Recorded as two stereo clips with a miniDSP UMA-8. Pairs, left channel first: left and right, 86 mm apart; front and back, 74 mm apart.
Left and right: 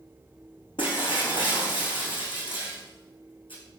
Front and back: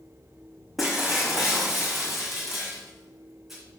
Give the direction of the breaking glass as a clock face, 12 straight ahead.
9 o'clock.